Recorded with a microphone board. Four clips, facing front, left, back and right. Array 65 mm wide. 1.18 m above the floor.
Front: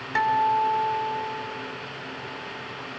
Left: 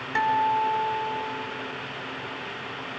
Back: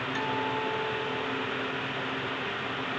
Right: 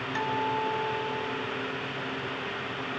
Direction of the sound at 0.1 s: 40° left.